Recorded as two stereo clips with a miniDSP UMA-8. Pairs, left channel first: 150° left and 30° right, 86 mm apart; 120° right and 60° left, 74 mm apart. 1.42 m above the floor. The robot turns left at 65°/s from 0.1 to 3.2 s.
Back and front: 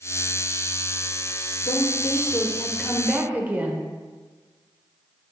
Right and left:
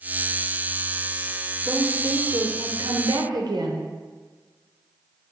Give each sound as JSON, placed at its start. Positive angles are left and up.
{"t": 1.6, "sound": "a woman speaking", "azimuth_deg": 145, "distance_m": 0.7}